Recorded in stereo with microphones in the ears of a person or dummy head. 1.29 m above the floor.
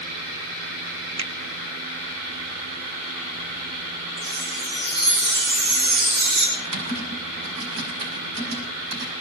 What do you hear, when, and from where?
1.2 s a finger snap: 30° right (ahead or behind), 0.9 m
4.2 s a chime: 55° right (ahead or behind), 7.5 m
6.6 s typing on a keyboard: 85° right, 7.5 m